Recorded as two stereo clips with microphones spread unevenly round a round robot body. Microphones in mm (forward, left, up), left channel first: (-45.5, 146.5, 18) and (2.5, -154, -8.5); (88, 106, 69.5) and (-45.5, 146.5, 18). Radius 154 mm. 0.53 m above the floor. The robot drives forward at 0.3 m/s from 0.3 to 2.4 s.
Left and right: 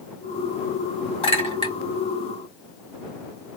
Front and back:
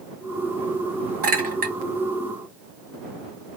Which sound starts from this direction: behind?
A clink, at 1.2 s.